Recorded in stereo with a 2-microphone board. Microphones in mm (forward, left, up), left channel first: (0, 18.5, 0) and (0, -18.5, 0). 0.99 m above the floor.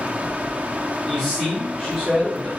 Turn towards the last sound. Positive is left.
turn(degrees=0)  # may be behind; listen again after turning